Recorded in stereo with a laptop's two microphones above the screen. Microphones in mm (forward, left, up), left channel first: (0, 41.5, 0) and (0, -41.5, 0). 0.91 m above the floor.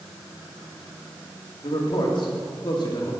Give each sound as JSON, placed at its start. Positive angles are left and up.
{"t": 1.6, "sound": "a man speaking", "side_deg": 70, "distance_m": 2.5}